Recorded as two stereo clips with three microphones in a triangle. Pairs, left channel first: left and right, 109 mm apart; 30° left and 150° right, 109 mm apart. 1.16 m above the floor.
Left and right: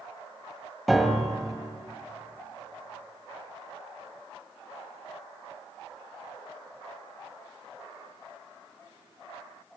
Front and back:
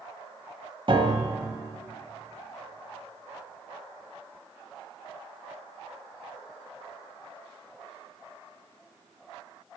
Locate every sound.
0.9 s a piano: straight behind, 1.9 m